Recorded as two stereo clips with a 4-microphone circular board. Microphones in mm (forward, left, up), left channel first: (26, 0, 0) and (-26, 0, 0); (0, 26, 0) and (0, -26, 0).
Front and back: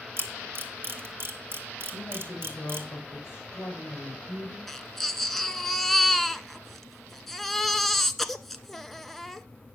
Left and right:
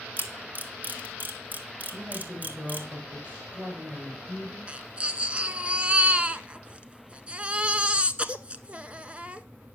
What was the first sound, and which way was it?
A camera shutter, 145° right.